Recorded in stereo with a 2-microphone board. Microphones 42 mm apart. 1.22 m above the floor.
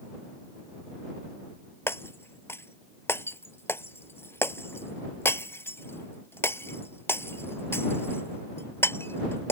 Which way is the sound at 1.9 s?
70° left (ahead or behind).